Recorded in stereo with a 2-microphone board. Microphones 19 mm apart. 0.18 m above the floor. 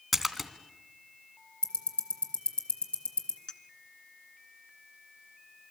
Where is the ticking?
55° left (ahead or behind), 4 m.